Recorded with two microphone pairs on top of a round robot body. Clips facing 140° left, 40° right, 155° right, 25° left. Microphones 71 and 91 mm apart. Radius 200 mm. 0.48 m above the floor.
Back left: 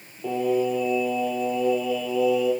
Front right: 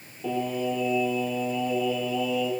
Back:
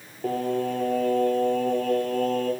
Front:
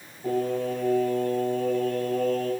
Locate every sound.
0.2 s singing: 140° right, 1.0 m